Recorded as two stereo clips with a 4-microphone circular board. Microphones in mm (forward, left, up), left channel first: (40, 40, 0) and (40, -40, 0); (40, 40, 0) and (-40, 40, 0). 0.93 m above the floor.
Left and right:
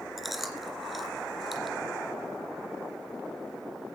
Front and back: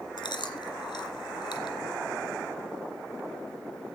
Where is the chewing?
Straight ahead, 2.5 m.